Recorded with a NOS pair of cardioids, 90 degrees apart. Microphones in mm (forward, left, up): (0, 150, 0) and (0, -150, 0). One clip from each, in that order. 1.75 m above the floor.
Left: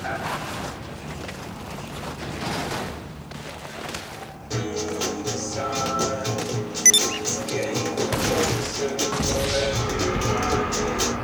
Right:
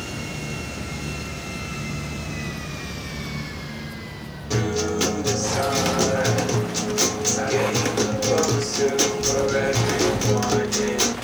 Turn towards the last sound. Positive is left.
turn(degrees=-30)